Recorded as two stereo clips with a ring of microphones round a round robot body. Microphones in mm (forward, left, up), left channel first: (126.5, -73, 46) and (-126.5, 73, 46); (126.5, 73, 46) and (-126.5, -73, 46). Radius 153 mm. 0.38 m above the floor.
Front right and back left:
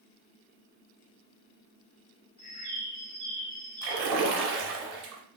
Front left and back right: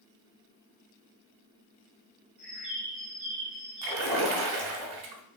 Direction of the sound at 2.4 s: 65° right.